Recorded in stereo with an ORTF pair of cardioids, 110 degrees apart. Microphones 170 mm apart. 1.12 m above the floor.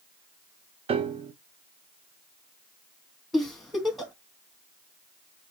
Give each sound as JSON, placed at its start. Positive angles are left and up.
{"t": 0.9, "sound": "a piano", "azimuth_deg": -35, "distance_m": 0.7}
{"t": 3.3, "sound": "a giggle", "azimuth_deg": 0, "distance_m": 1.5}